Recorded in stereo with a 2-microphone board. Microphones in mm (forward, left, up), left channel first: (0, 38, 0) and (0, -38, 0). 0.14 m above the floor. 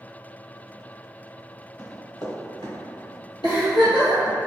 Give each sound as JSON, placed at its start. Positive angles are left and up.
{"t": 1.8, "sound": "running footsteps", "side_deg": 45, "distance_m": 1.4}
{"t": 3.4, "sound": "a giggle", "side_deg": 70, "distance_m": 1.9}